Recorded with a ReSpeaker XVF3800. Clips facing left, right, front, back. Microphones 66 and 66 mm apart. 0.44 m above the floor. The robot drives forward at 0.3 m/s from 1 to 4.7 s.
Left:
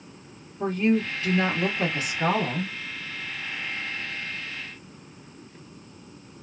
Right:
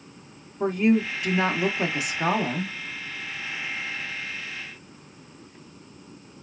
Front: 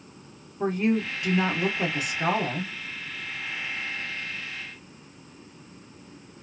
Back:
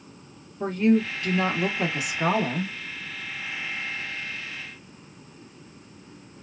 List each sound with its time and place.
0.6 s a woman speaking: 30° right, 0.8 m; by 2.8 s 155° right, 0.8 m